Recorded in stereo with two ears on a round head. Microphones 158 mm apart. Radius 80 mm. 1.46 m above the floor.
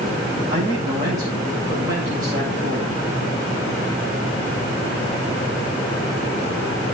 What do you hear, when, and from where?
0.5 s a man speaking: 20° right (ahead or behind), 7 m